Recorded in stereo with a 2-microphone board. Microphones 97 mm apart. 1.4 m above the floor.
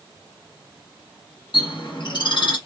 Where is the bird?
55° left (ahead or behind), 1.2 m.